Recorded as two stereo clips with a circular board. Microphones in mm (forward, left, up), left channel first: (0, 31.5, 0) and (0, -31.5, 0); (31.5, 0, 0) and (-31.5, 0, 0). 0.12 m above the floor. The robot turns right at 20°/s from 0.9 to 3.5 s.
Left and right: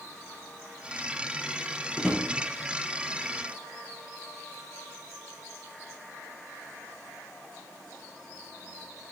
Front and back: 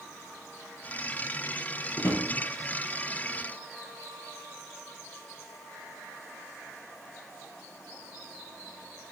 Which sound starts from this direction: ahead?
A drawer, at 2.0 s.